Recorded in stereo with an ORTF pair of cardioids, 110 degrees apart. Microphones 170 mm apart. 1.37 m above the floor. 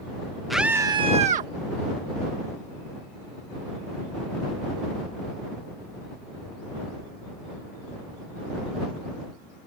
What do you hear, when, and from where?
0.5 s a scream: straight ahead; by 1.5 s 55° right